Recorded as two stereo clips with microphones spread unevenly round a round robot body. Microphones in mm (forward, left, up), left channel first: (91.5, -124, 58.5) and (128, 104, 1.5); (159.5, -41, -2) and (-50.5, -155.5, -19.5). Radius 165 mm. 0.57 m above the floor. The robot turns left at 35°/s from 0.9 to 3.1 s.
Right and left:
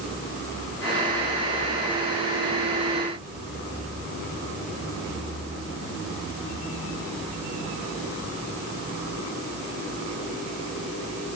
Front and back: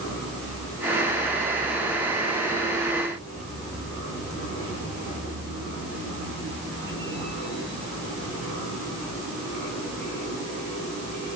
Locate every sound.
Only background noise.